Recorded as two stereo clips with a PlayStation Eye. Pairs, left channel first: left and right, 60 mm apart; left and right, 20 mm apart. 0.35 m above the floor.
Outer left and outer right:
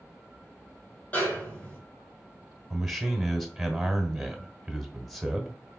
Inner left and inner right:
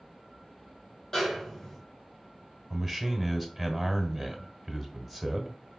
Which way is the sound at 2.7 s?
Centre (ahead or behind).